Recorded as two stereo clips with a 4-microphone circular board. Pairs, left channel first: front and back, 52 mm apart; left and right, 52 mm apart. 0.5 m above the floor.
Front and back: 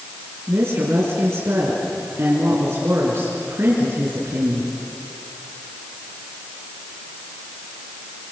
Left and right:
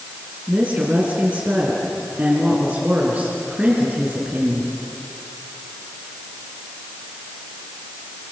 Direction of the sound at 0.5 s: 150° right.